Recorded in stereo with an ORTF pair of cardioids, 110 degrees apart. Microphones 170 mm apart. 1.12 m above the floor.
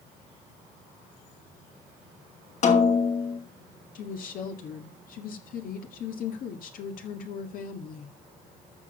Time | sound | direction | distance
2.6 | a snare drum | 45° left | 2.5 m
4.0 | a woman speaking | 60° left | 1.9 m